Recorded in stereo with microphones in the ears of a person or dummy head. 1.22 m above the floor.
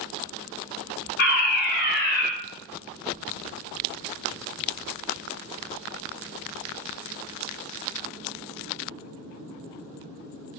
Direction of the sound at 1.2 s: 55° left (ahead or behind).